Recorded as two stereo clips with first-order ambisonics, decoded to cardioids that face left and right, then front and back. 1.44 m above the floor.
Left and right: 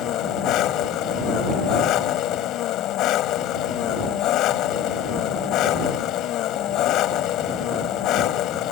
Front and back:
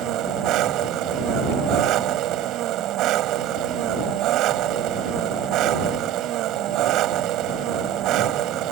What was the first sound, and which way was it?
An engine running, 135° left.